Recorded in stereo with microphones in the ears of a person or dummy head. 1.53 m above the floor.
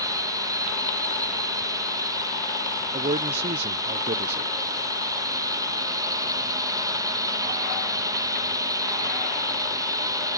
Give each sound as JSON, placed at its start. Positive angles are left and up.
{"t": 0.0, "sound": "a drone", "side_deg": -15}
{"t": 2.9, "sound": "a man speaking", "side_deg": -35}